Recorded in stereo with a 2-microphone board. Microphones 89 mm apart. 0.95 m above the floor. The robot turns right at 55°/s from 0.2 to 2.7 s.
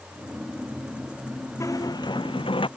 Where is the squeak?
35° left; by 2.7 s 95° left.